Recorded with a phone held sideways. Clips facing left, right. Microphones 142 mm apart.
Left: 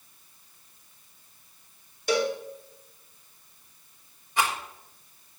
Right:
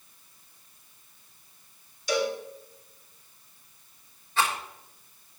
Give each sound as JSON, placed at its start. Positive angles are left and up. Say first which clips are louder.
{"t": 2.1, "sound": "a cowbell", "louder": "left 2 dB", "side_deg": 60, "distance_m": 2.5}
{"t": 4.4, "sound": "a rattle", "louder": "even", "side_deg": 15, "distance_m": 3.0}